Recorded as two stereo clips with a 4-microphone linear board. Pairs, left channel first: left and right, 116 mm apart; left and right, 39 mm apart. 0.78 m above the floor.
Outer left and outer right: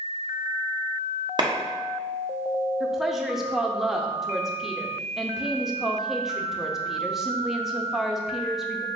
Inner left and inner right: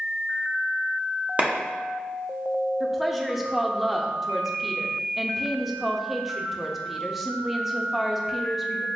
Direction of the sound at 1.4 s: 40° right (ahead or behind).